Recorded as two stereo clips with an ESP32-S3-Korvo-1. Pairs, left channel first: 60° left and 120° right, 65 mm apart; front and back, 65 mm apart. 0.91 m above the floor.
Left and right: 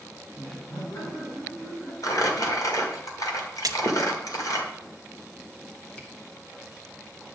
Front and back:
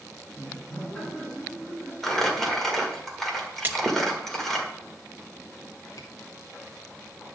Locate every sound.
0.3 s laughter: 75° left, 6 m
2.0 s crumpling: 85° left, 1.8 m
3.6 s a splash: 120° right, 0.8 m
6.0 s a camera shutter: 5° right, 1.5 m